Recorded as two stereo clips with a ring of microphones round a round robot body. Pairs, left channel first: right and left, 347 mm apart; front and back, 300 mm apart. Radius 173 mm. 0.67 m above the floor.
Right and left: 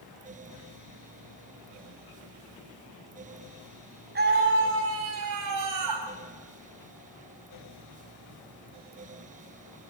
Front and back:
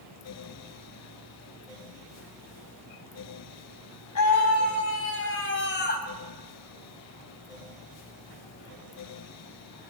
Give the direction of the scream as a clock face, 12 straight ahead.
11 o'clock.